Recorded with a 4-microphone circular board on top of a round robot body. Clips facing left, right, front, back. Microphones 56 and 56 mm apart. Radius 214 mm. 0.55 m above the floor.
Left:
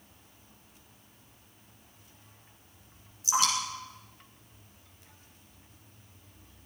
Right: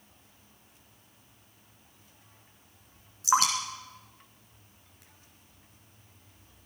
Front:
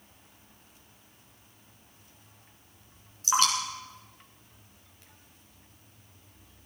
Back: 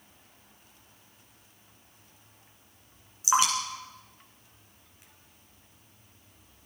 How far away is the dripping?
About 3 m.